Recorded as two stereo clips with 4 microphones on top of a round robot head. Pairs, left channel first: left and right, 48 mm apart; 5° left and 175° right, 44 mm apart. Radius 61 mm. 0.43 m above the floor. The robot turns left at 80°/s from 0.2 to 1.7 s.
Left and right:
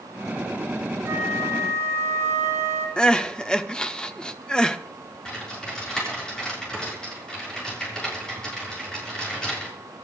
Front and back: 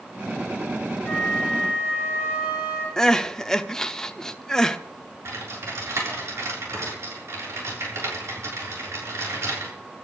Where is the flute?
70° right, 6 m; by 2.9 s 125° right, 6 m.